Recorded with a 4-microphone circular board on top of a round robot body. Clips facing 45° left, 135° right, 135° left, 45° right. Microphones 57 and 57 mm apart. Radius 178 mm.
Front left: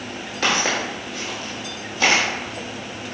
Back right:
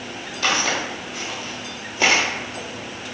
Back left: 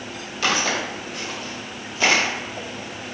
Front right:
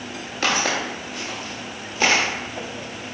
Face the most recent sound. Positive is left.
turn(degrees=-105)